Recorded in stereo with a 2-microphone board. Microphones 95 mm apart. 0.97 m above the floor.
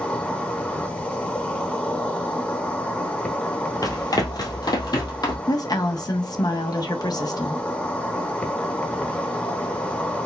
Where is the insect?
10° left (ahead or behind), 1.0 m.